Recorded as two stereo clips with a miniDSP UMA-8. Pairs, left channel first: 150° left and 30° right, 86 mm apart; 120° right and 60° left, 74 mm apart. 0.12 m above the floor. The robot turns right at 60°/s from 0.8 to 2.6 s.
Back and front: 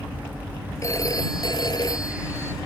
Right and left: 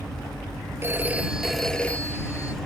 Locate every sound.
0.8 s a phone ringing: 105° left; by 2.5 s 150° right